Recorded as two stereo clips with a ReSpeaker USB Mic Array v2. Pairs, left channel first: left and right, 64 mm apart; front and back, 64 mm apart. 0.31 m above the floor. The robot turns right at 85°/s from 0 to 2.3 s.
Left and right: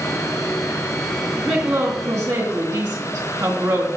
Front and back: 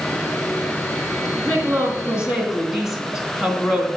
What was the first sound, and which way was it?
A woman speaking, 170° right.